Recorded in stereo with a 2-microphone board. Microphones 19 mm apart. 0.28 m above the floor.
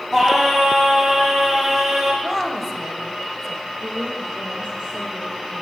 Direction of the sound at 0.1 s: 20° right (ahead or behind).